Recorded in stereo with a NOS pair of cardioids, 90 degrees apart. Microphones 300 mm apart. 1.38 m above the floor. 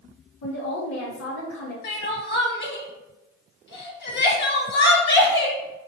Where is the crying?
40° left, 0.9 m.